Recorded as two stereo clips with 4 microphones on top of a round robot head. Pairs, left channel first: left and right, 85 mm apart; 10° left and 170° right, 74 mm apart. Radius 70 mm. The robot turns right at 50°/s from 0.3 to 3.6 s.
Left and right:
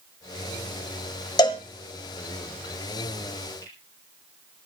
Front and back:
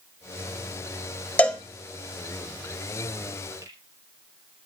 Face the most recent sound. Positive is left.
turn(degrees=150)